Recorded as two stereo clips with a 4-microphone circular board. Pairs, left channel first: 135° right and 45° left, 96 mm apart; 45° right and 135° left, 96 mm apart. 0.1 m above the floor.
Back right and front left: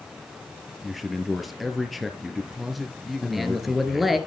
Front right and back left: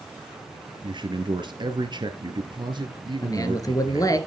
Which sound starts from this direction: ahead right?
A man speaking, at 3.2 s.